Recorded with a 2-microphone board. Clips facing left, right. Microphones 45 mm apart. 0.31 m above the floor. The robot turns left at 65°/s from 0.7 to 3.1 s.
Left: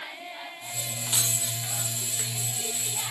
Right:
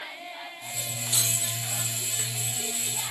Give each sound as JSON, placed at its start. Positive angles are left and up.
{"t": 1.1, "sound": "keys jangling", "side_deg": 75, "distance_m": 5.5}